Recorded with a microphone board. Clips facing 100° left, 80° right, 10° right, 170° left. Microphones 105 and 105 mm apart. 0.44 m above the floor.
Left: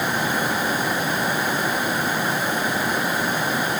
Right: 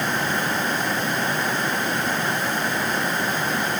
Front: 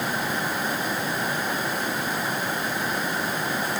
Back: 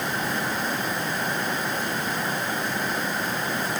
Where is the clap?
I don't hear a clap.